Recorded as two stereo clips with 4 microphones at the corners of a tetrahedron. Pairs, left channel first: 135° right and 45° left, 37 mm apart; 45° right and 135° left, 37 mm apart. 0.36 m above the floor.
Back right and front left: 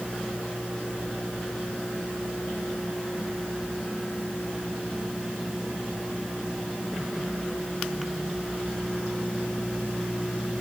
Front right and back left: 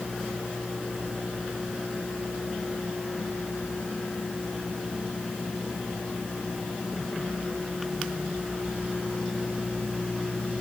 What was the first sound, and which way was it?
Only background noise.